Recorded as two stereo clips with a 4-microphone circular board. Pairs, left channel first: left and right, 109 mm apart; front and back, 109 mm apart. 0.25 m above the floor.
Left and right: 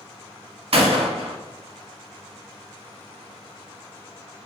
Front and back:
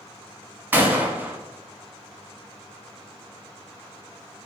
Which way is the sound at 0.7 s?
110° right.